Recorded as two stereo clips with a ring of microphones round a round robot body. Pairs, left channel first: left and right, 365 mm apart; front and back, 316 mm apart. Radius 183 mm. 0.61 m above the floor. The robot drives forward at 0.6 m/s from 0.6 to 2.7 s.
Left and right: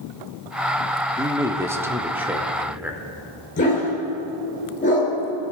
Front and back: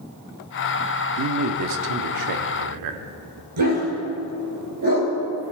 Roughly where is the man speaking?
Behind.